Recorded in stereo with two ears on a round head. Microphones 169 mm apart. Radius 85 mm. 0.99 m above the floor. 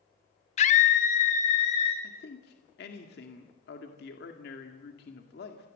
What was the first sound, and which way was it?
A scream, 35° left (ahead or behind).